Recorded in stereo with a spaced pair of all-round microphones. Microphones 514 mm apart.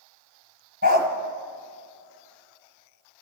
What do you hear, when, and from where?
0.8 s a dog barking: 20° right (ahead or behind), 1.9 m